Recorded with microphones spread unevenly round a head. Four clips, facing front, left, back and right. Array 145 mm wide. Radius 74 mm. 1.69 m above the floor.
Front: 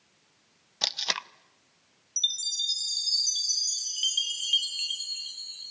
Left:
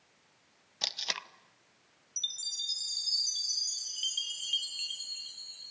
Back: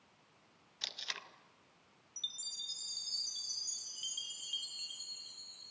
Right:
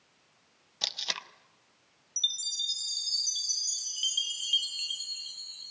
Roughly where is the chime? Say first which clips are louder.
Right 6 dB, front 14 dB; ahead.